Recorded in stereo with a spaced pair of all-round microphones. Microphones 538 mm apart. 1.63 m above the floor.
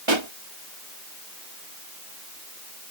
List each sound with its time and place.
0.1 s a pop: 55° right (ahead or behind)